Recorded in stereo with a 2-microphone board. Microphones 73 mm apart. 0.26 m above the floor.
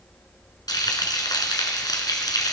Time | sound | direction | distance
0.7 | frying | 65° left (ahead or behind) | 1.7 m